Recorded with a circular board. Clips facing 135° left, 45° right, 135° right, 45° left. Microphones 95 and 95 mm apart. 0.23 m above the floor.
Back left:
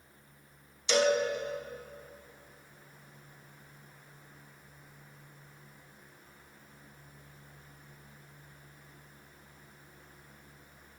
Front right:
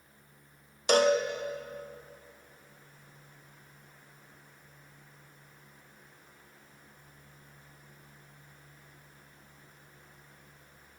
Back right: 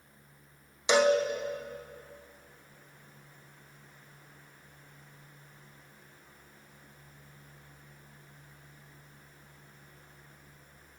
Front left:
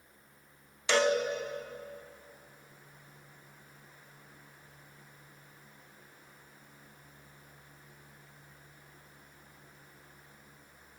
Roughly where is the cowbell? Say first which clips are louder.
Front right 3 dB, back right 3 dB; ahead right.